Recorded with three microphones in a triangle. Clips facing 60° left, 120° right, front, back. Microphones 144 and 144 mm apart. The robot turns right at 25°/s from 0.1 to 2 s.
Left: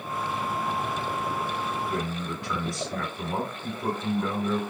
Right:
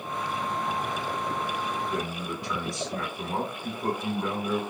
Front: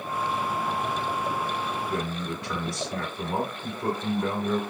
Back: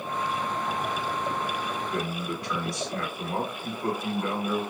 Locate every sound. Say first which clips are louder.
1.9 s a man speaking: left 1 dB, even; 35° right, 1.2 m; by 4.6 s 30° right, 1.2 m